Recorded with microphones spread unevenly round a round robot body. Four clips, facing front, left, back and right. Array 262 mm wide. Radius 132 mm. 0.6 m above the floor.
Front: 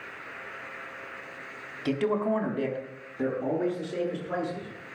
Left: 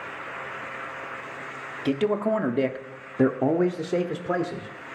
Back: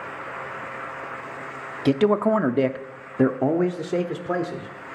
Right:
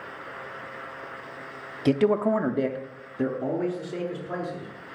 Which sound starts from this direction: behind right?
A man speaking, at 1.9 s.